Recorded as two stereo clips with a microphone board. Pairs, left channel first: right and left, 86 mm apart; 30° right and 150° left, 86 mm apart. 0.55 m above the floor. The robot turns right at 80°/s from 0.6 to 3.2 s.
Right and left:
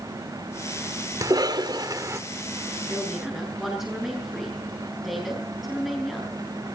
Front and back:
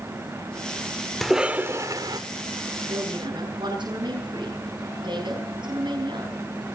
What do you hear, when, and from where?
1.2 s a cough: 60° left, 2 m; by 2.2 s 135° left, 2 m
2.9 s a woman speaking: 150° left, 4.5 m; by 6.4 s 175° left, 4.5 m